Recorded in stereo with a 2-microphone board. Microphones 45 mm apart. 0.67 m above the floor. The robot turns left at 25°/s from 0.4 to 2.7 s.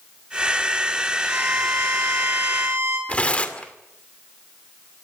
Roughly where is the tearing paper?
Left.